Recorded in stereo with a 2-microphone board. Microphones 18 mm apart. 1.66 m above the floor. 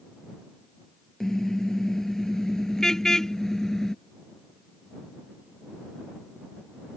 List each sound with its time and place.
1.2 s a car horn: 30° left (ahead or behind)